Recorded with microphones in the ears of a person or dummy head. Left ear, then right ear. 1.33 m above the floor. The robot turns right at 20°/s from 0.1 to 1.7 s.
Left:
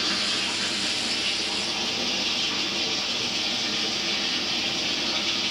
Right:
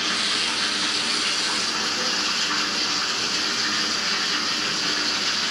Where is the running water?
150° right, 3.5 m; by 5.5 s 120° right, 3.5 m.